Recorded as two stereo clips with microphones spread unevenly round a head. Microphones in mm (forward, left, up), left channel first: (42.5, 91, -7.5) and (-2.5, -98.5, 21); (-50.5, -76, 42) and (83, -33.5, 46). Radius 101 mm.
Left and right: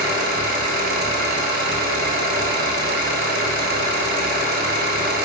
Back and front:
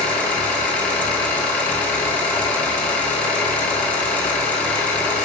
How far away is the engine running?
About 3 m.